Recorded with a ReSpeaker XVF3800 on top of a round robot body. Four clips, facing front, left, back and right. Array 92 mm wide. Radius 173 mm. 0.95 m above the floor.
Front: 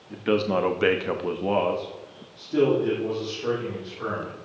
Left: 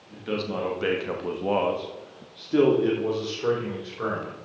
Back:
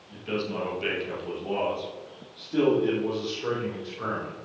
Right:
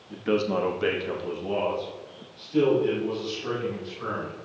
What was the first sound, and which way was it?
A man speaking, 25° right.